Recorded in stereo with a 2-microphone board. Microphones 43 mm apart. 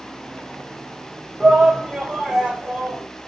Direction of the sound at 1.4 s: 10° left (ahead or behind).